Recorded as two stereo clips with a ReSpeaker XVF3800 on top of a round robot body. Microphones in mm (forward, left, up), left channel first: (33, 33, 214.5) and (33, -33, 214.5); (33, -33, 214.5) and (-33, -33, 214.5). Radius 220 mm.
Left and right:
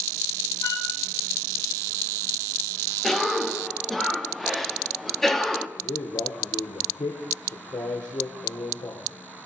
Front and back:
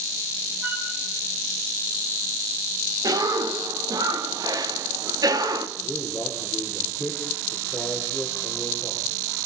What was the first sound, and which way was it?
A flute, 120° left.